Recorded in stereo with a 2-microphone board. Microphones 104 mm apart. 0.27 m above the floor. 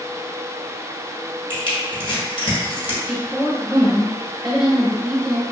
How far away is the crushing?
About 1.3 m.